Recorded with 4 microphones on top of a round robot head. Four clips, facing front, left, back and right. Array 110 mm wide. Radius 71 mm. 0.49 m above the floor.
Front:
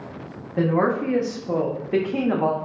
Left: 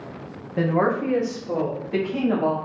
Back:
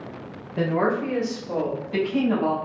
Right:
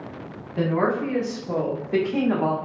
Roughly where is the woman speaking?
Ahead left.